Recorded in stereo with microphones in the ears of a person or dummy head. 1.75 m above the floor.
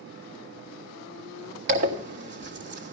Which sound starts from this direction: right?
A zipper, at 1.7 s.